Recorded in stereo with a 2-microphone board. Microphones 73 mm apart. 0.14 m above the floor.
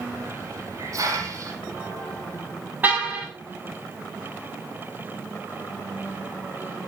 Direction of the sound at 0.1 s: 45° right (ahead or behind).